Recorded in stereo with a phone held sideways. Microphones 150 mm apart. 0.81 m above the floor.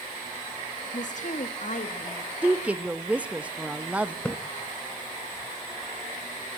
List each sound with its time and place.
0.9 s a woman speaking: 55° left (ahead or behind), 1.3 m
2.4 s a woman speaking: 10° right (ahead or behind), 0.6 m
4.2 s a splash: 10° left (ahead or behind), 0.7 m